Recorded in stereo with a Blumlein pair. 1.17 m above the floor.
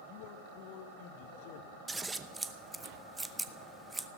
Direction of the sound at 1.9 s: 5° right.